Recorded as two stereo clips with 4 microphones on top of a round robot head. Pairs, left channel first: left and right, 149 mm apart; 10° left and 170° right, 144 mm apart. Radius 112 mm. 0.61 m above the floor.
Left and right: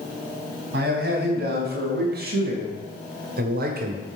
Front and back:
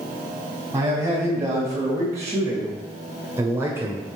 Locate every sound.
0.7 s a man speaking: 100° right, 4 m; by 4.0 s 95° right, 1.6 m